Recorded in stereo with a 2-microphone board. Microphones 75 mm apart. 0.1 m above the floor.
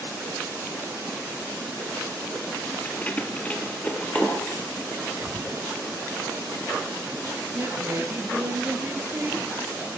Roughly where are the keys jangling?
Centre.